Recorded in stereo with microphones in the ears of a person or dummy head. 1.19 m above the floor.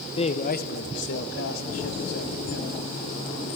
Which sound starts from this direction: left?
A man speaking, at 0.2 s.